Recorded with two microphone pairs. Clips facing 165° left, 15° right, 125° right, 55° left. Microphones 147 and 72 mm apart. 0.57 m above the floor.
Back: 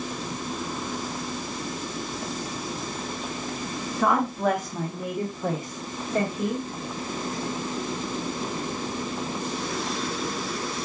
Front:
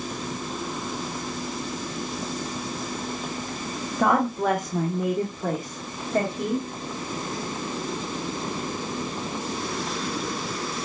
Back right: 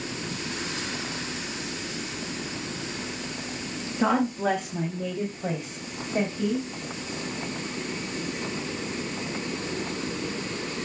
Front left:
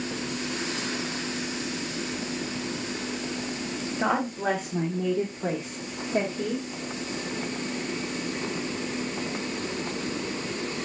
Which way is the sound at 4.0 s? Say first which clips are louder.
Front 1 dB, back right 3 dB; 15° right.